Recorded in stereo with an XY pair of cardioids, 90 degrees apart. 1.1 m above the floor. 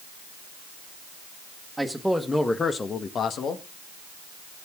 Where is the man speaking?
Straight ahead, 1.6 m; by 3.6 s 75° left, 1.5 m.